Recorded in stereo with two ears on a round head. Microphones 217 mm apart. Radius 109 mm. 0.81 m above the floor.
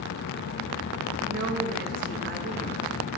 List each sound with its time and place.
1.3 s a woman speaking: 40° right (ahead or behind), 3 m